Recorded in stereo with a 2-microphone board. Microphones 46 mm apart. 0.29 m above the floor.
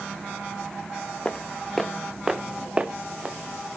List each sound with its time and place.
1.2 s footsteps: 25° left (ahead or behind), 1.1 m; by 3.4 s 25° right (ahead or behind), 1.8 m